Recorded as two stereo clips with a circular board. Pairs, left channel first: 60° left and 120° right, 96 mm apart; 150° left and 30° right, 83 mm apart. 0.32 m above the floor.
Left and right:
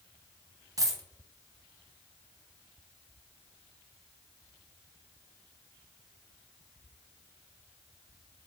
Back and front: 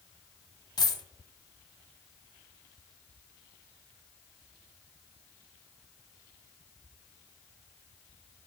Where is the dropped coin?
175° right, 0.5 m.